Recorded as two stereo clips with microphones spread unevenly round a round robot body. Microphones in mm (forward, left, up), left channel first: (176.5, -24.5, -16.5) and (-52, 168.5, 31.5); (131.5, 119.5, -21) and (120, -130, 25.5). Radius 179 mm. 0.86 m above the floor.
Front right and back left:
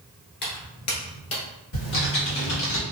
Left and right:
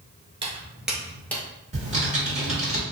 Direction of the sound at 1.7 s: 25° right.